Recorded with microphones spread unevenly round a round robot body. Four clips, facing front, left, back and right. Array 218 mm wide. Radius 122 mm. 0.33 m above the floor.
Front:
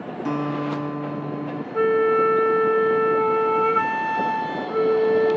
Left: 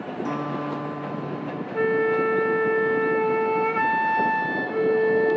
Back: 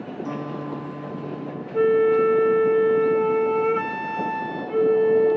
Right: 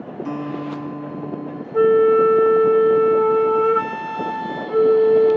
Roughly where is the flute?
Right.